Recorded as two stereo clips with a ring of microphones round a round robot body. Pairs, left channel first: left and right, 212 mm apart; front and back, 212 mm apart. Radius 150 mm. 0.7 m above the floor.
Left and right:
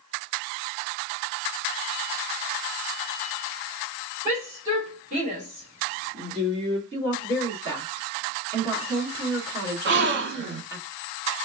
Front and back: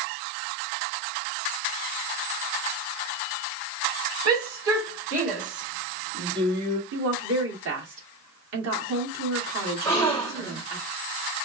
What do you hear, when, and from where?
4.2 s a shout: 165° right, 2.5 m; by 6.8 s 120° right, 1.2 m
6.9 s a woman speaking: 170° right, 1.6 m
9.8 s a gasp: 80° right, 0.9 m